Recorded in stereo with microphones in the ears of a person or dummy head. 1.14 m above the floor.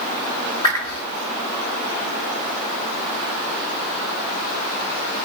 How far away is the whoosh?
About 6.5 m.